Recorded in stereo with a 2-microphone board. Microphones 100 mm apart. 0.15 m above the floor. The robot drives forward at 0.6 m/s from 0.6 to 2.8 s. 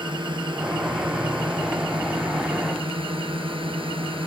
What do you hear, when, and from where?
0.0 s a drone: 50° right (ahead or behind); by 4.3 s 60° right (ahead or behind)